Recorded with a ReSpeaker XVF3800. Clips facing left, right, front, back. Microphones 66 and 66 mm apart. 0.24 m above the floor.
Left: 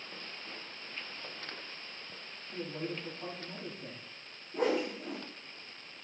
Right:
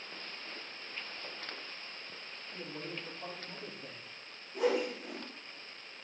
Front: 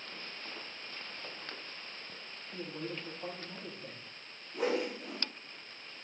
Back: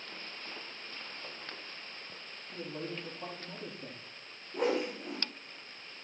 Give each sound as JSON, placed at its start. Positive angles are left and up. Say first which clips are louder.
{"t": 2.5, "sound": "a man speaking", "louder": "left 5 dB, back 1 dB", "azimuth_deg": 165, "distance_m": 9.5}
{"t": 4.5, "sound": "a whoosh", "louder": "even, back 1 dB", "azimuth_deg": 135, "distance_m": 6.5}